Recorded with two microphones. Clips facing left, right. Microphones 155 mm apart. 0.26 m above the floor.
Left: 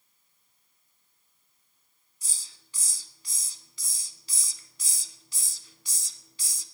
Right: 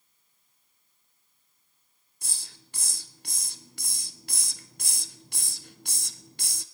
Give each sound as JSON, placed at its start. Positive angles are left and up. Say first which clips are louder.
{"t": 2.2, "sound": "a hiss", "louder": "right 7 dB", "side_deg": -60, "distance_m": 0.6}